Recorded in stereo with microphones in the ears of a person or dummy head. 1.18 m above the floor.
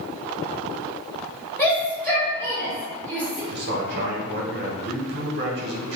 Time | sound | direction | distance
1.6 | a shout | 5° left (ahead or behind) | 1.8 m
3.5 | a man speaking | 50° right (ahead or behind) | 0.7 m